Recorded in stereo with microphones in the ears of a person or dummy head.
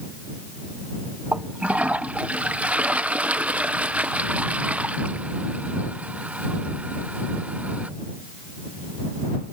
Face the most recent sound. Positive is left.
turn(degrees=-5)  # may be behind; listen again after turning